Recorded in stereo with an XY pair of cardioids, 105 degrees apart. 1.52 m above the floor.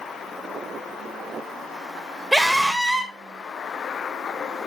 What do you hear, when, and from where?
2.3 s a scream: 10° right, 3 m